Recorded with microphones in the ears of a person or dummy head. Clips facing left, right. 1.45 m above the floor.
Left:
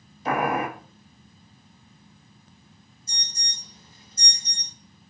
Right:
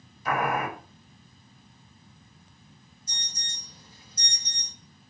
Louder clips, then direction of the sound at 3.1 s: Even; 10° left (ahead or behind).